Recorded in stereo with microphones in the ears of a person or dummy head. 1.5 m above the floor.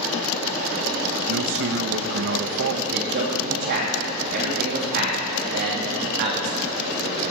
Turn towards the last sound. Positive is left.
turn(degrees=-55)  # may be behind; listen again after turning